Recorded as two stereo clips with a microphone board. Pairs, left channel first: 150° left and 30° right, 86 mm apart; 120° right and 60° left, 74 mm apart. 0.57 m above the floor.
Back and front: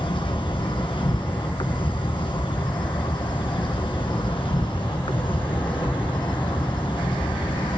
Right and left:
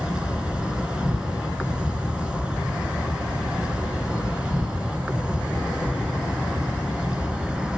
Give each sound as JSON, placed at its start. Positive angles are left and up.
{"t": 0.0, "sound": "an insect", "azimuth_deg": 140, "distance_m": 2.5}